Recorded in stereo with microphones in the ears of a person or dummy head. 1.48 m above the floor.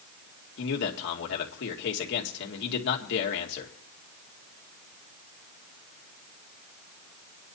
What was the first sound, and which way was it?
A man speaking, 65° left (ahead or behind).